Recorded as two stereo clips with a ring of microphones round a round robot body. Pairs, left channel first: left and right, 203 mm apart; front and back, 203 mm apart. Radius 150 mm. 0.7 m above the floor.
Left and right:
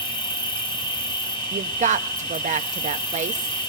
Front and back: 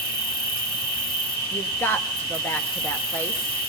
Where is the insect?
25° left, 3.5 m.